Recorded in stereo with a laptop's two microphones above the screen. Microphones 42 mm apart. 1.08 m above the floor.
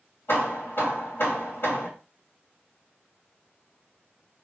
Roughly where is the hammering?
Left.